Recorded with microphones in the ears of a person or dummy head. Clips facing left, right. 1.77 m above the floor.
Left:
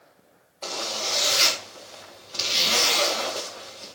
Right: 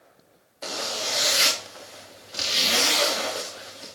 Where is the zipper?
10° right (ahead or behind), 3 m.